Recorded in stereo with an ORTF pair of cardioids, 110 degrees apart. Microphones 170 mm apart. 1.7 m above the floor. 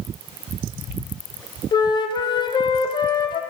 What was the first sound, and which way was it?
A flute, 30° left.